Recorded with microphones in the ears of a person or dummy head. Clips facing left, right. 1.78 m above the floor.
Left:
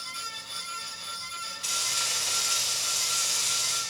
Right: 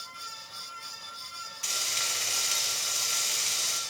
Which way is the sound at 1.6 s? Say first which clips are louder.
Even; 30° right (ahead or behind).